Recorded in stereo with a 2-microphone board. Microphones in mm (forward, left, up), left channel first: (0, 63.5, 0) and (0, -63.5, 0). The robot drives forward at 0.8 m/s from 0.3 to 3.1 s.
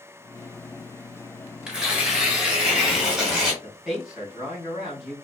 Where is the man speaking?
5° right (ahead or behind), 3.5 m.